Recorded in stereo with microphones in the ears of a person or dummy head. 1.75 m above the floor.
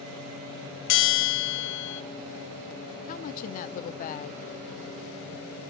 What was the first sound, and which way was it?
A bell, 65° left (ahead or behind).